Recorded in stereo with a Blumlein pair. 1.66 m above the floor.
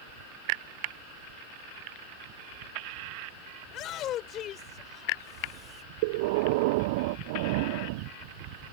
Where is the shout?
35° left; by 5.8 s 25° left.